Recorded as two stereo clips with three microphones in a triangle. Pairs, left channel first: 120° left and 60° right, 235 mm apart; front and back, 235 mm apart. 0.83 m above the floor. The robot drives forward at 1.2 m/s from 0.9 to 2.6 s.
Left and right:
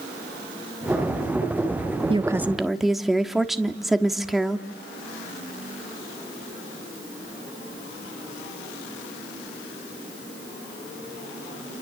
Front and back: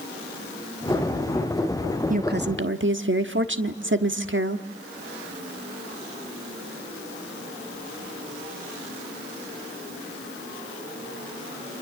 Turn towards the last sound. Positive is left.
turn(degrees=-150)